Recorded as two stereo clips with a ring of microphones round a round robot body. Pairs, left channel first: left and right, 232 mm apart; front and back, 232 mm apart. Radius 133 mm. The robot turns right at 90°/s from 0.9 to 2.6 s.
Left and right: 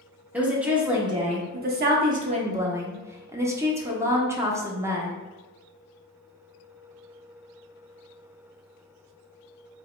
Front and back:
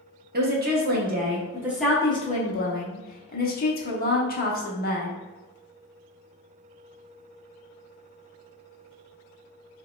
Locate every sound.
0.3 s a woman speaking: 170° right, 0.8 m; by 5.1 s 15° right, 0.8 m